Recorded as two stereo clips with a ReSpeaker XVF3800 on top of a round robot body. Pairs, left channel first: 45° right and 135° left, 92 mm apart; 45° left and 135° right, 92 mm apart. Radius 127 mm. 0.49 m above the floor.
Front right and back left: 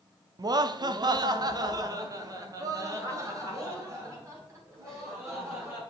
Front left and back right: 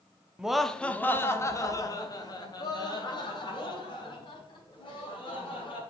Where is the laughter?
150° left, 0.9 m; by 5.8 s 75° left, 5 m.